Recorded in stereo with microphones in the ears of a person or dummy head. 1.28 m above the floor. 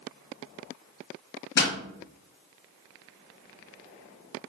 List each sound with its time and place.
1.6 s a pop: 55° left (ahead or behind), 0.9 m